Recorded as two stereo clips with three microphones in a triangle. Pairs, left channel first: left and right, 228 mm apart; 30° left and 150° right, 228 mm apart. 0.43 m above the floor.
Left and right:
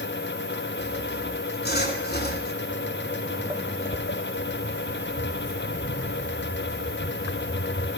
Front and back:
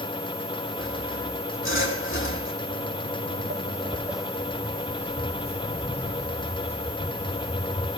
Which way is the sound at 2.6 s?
120° right.